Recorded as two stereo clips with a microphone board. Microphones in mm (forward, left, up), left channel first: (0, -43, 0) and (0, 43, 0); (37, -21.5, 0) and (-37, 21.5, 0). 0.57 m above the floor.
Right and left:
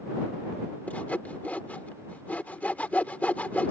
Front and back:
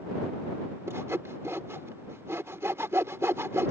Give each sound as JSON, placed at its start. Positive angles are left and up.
{"t": 0.9, "sound": "sawing", "azimuth_deg": -160}